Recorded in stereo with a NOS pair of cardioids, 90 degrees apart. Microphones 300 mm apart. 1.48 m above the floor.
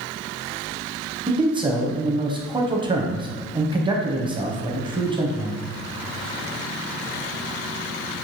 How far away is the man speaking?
About 0.9 m.